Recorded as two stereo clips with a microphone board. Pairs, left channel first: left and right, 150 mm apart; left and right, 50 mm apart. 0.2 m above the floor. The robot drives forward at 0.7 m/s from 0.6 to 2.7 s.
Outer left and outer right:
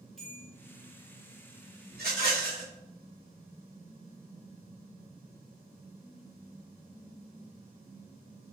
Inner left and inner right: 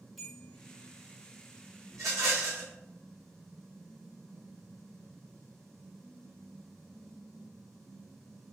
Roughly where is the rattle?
Right.